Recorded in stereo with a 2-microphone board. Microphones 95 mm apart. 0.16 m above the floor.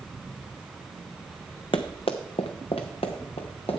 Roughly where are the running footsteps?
Left.